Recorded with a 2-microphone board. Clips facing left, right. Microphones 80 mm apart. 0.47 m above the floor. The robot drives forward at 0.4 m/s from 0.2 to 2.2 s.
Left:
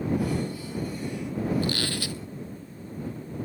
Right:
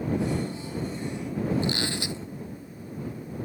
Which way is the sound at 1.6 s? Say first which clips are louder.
Even; 20° right (ahead or behind).